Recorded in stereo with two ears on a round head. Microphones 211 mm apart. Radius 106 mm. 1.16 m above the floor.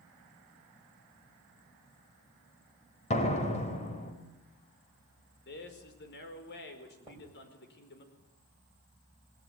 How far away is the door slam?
About 4 m.